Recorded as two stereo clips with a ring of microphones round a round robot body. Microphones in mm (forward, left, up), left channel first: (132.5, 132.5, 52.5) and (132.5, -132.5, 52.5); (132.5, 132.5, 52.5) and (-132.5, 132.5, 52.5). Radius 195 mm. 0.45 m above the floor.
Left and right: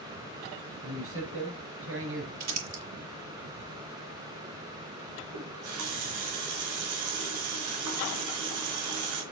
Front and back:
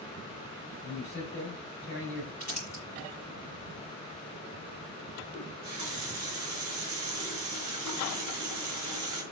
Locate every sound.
0.8 s a man speaking: 55° right, 3 m
2.4 s crumpling: 70° right, 5.5 m
5.3 s a running tap: 100° right, 4 m